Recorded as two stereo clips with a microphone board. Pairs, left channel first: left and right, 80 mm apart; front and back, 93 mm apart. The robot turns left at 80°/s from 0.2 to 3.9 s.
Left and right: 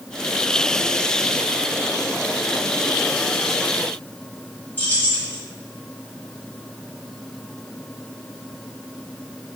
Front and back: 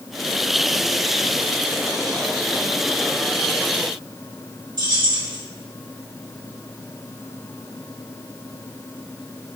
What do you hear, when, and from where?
4.8 s keys jangling: 150° left, 1.4 m